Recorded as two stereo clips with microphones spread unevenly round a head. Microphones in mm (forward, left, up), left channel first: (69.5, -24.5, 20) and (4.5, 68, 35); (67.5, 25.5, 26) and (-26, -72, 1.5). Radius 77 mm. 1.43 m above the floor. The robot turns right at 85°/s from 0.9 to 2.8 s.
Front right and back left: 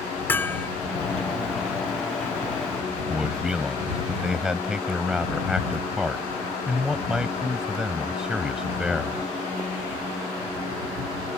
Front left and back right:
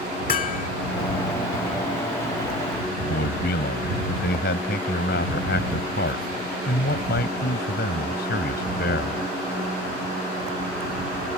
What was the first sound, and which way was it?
Hammering, 20° left.